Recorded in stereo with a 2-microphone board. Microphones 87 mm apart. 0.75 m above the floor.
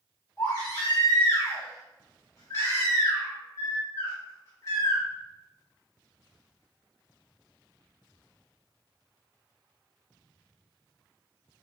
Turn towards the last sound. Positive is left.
turn(degrees=40)  # may be behind; listen again after turning